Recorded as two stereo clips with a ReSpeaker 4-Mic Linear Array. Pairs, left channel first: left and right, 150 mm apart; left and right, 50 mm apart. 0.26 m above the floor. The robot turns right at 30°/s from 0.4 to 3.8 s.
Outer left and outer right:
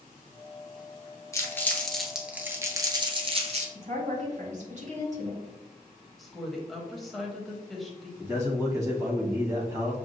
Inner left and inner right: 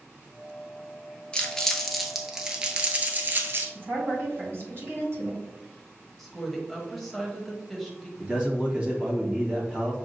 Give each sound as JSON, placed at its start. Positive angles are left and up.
{"t": 1.3, "sound": "crumpling", "side_deg": 20, "distance_m": 0.8}
{"t": 3.8, "sound": "a woman speaking", "side_deg": -50, "distance_m": 2.0}
{"t": 6.2, "sound": "a woman speaking", "side_deg": 0, "distance_m": 1.0}
{"t": 8.2, "sound": "a man speaking", "side_deg": -20, "distance_m": 1.4}